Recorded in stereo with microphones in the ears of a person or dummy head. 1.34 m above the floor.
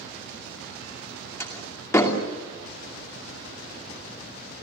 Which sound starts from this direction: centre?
A door slam, at 1.4 s.